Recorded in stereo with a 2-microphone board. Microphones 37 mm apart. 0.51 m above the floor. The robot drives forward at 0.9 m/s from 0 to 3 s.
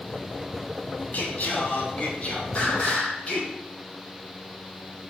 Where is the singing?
50° left (ahead or behind), 2.5 m; by 3.5 s 30° left (ahead or behind), 4 m.